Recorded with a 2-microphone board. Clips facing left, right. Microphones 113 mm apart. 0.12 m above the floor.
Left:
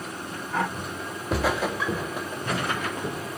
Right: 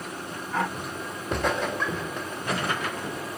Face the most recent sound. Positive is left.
turn(degrees=15)  # may be behind; listen again after turning